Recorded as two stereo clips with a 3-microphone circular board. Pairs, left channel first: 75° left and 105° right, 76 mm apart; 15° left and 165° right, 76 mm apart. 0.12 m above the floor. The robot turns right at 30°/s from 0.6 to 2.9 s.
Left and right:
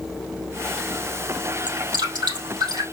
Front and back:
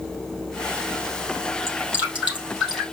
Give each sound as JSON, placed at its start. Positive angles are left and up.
{"t": 1.7, "sound": "dripping", "azimuth_deg": -115, "distance_m": 3.5}